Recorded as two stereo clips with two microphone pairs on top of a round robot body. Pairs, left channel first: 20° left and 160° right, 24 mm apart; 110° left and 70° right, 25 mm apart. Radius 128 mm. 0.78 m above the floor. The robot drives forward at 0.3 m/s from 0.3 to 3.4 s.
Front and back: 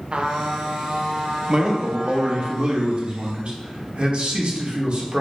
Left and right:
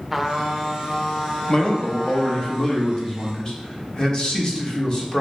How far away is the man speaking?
About 0.8 m.